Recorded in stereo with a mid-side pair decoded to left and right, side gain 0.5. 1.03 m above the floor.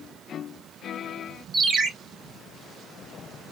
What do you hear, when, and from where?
1.5 s a ringtone: 35° right, 2.5 m